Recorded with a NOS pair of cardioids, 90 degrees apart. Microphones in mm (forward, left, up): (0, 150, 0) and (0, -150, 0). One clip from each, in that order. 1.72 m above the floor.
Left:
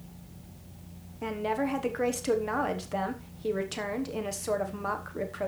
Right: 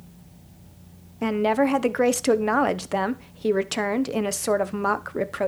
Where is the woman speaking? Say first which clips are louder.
Right 9 dB; 50° right, 1.1 m.